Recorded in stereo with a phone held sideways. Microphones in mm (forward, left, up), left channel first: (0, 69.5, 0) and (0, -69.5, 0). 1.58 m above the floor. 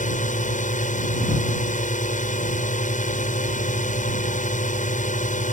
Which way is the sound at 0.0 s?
65° left (ahead or behind).